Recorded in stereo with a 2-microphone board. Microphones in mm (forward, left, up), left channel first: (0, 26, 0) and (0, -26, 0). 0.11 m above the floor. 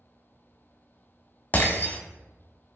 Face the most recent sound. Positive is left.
turn(degrees=35)  # may be behind; listen again after turning